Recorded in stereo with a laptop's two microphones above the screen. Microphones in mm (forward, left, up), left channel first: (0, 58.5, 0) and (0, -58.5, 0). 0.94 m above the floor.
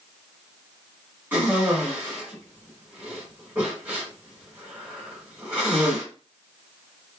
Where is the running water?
No running water in this recording.